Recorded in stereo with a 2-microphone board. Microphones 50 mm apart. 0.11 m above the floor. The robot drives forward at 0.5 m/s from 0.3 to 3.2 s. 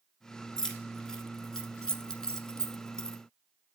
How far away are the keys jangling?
About 1.3 m.